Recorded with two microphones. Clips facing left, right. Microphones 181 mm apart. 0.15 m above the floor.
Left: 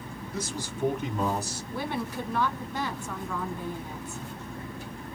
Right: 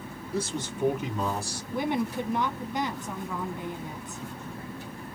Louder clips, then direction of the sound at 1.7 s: Right 5 dB; 20° right (ahead or behind).